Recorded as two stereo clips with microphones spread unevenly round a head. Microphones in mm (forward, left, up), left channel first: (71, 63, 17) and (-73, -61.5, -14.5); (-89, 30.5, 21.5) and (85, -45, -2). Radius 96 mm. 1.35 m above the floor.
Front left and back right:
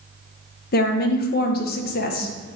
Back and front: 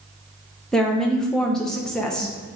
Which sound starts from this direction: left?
A woman speaking, at 0.7 s.